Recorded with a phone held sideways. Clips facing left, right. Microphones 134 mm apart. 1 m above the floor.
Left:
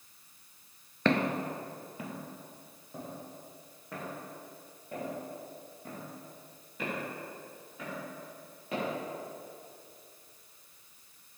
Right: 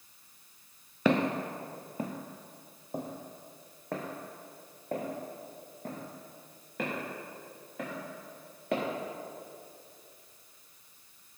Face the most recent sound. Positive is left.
turn(degrees=-80)